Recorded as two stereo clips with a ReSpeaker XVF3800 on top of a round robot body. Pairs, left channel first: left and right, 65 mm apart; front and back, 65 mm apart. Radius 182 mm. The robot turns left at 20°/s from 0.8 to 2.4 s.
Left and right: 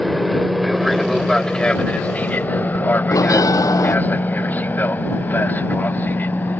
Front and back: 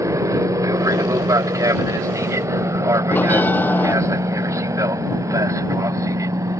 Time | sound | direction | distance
0.0 | an aircraft | straight behind | ?
3.1 | a bell | 60° left | ?